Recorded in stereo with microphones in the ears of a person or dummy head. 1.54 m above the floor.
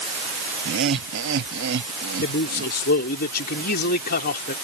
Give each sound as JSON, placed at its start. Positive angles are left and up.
{"t": 0.7, "sound": "laughter", "side_deg": -70}
{"t": 2.2, "sound": "a man speaking", "side_deg": 55}